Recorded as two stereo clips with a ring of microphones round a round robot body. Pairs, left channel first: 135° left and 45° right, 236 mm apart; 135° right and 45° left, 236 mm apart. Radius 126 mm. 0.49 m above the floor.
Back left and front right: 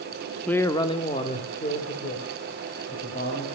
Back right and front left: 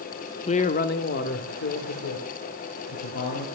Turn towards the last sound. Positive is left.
turn(degrees=-170)